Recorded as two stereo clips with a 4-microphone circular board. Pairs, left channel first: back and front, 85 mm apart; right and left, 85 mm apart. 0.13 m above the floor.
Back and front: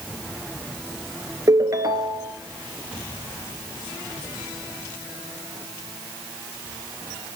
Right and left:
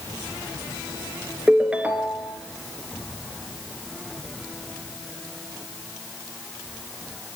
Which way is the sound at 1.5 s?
20° left.